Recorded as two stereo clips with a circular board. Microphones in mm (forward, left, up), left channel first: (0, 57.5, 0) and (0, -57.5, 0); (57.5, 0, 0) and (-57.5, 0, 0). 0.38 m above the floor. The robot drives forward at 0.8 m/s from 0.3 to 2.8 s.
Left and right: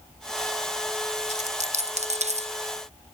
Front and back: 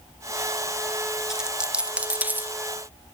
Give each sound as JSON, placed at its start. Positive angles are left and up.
{"t": 1.3, "sound": "a dropped coin", "azimuth_deg": -95}